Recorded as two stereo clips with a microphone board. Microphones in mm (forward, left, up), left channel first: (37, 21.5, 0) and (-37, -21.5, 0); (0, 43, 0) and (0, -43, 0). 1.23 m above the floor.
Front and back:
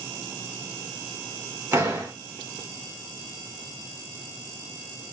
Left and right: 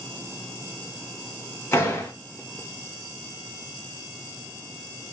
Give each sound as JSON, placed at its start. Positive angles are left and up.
{"t": 1.7, "sound": "a door slam", "azimuth_deg": 150, "distance_m": 1.1}